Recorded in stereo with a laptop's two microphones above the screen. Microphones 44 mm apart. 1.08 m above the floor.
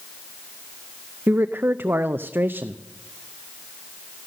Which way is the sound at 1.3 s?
55° right (ahead or behind).